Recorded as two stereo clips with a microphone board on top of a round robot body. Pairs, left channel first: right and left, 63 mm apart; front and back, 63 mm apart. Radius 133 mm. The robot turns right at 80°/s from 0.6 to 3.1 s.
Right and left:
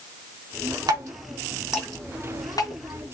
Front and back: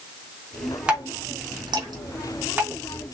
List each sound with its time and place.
0.9 s dripping: 105° left, 3.5 m; by 3.1 s 75° right, 3.5 m